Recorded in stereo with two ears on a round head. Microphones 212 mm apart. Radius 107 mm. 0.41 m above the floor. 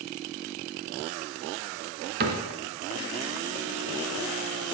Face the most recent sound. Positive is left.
turn(degrees=-45)  # may be behind; listen again after turning